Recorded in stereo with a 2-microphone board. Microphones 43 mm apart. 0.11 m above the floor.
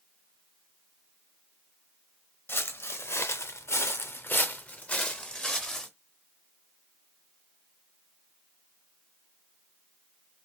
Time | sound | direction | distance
2.5 | footsteps | 55° left (ahead or behind) | 0.9 m